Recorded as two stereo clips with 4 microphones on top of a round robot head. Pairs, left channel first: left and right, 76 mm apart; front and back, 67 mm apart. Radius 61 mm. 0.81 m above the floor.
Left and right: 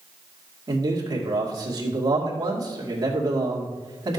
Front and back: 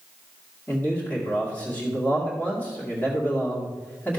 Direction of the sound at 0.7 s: 65° right.